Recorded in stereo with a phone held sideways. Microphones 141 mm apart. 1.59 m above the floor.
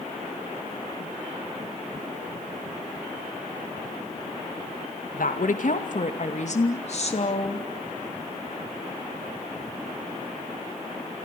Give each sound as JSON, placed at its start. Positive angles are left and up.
{"t": 5.1, "sound": "a woman speaking", "side_deg": 75, "distance_m": 2.0}